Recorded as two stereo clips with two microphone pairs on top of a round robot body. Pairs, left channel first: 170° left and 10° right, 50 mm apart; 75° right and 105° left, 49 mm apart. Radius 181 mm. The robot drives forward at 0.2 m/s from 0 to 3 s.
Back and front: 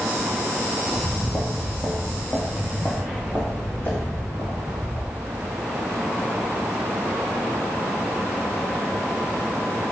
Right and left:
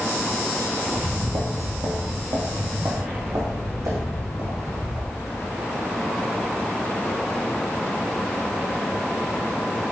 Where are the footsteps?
65° left, 0.9 m; by 5.5 s 115° left, 4 m.